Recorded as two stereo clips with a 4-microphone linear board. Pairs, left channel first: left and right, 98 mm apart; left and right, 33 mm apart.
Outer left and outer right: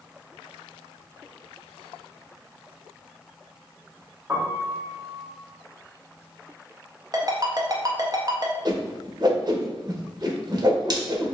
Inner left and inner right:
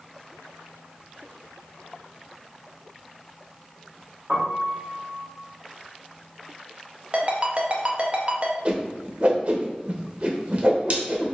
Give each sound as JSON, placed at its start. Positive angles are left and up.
{"t": 4.3, "sound": "a piano", "side_deg": -20, "distance_m": 1.1}
{"t": 7.1, "sound": "a ringtone", "side_deg": -35, "distance_m": 0.5}
{"t": 8.7, "sound": "a whoosh", "side_deg": -40, "distance_m": 0.6}